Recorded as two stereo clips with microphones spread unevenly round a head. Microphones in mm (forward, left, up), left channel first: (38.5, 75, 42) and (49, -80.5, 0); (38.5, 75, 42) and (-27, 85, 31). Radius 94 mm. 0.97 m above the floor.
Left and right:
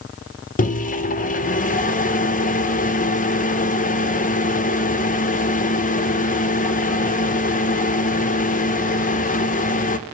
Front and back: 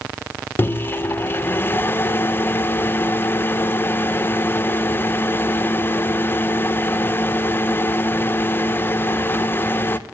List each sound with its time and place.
0.6 s a microwave: 55° left, 0.5 m